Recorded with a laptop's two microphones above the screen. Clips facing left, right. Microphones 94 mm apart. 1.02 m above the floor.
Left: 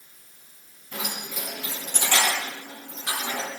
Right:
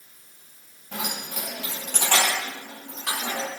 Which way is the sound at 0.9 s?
90° right.